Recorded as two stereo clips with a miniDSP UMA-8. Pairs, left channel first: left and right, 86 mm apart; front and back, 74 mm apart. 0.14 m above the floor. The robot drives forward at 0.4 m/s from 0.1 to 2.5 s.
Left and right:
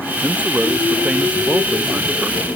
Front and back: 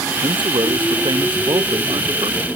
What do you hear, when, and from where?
0.2 s a man speaking: 165° right